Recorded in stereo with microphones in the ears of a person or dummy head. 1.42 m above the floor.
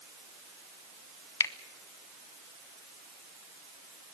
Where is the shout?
I don't hear a shout.